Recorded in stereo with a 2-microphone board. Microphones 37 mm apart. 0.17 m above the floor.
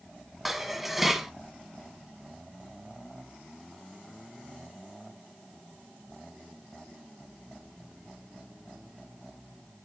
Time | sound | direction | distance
0.5 | dishes clattering | 5° right (ahead or behind) | 1.0 m